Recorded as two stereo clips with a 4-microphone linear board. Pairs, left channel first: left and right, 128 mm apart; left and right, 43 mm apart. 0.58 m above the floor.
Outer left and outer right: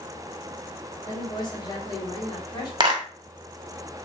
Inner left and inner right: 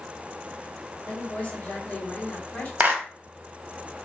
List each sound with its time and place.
1.1 s a woman speaking: 35° left (ahead or behind), 1.3 m
2.8 s a clap: 35° right (ahead or behind), 1.3 m